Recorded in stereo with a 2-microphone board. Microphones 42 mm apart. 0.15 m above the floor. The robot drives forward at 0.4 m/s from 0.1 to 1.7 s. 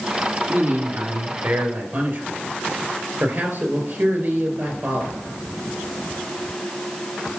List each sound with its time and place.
0.5 s a man speaking: 60° right (ahead or behind), 2.5 m; by 5.2 s 55° right (ahead or behind), 2.5 m